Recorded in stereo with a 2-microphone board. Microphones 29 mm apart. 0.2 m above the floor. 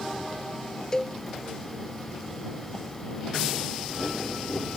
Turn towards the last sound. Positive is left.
turn(degrees=25)  # may be behind; listen again after turning